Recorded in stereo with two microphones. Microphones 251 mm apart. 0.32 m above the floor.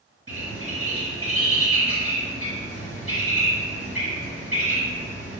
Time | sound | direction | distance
0.3 | a bird | 60° right (ahead or behind) | 1.0 m